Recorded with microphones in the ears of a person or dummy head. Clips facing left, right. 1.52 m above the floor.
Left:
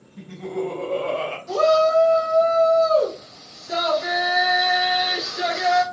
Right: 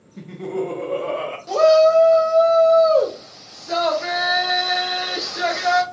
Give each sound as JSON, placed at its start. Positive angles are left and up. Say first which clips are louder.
{"t": 0.2, "sound": "laughter", "louder": "right 2 dB", "side_deg": -65, "distance_m": 0.6}
{"t": 1.5, "sound": "a shout", "louder": "right 5 dB", "side_deg": -75, "distance_m": 0.8}